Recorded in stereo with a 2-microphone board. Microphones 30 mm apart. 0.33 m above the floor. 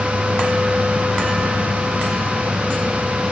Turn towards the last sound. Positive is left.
No sound to turn to.